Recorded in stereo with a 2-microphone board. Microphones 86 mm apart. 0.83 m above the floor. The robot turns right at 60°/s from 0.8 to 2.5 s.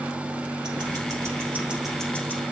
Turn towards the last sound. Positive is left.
turn(degrees=35)